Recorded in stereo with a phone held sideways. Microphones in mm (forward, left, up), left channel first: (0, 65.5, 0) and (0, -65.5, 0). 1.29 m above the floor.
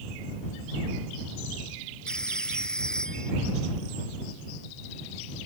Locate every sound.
2.1 s a phone ringing: 5° left (ahead or behind)